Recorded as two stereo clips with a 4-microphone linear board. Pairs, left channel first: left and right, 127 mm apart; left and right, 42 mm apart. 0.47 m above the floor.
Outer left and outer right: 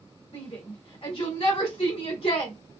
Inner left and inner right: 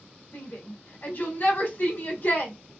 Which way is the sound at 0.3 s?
50° left (ahead or behind).